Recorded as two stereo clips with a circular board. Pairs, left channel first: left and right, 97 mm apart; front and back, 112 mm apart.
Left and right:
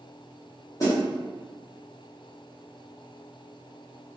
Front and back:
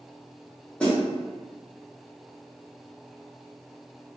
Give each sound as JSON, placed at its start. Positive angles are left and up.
{"t": 0.8, "sound": "a snare drum", "azimuth_deg": 75, "distance_m": 1.0}